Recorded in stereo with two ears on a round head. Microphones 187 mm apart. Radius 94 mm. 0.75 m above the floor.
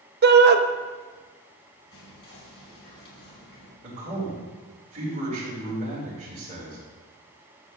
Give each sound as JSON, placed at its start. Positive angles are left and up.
{"t": 0.2, "sound": "a shout", "side_deg": -50, "distance_m": 0.9}
{"t": 1.9, "sound": "whispering", "side_deg": 55, "distance_m": 5.5}
{"t": 3.8, "sound": "a man speaking", "side_deg": -35, "distance_m": 3.5}